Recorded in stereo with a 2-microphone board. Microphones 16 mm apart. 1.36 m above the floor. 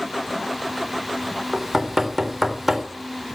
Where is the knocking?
Centre (ahead or behind), 3.5 m.